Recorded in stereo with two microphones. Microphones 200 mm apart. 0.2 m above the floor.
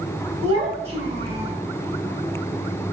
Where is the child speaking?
30° right (ahead or behind), 1.5 m.